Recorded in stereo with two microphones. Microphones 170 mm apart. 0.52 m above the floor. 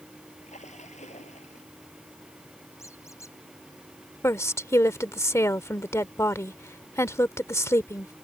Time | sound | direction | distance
0.4 | a splash | 45° left (ahead or behind) | ?
2.8 | a squeak | 15° left (ahead or behind) | ?
4.2 | a woman speaking | 15° left (ahead or behind) | ?